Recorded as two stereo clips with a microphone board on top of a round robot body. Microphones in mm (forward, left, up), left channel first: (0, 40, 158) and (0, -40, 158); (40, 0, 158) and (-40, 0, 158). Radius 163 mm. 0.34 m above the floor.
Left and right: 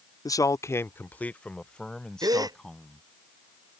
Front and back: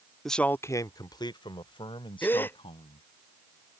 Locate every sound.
0.2 s a man speaking: 85° left; by 3.0 s 5° left
2.2 s a gasp: 60° right